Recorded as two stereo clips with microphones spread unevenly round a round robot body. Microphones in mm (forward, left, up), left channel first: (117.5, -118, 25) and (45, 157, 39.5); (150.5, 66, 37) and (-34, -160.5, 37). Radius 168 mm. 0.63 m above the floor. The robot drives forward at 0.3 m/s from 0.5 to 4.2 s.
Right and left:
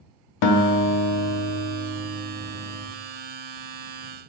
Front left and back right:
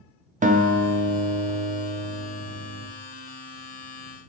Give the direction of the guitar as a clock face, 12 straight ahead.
2 o'clock.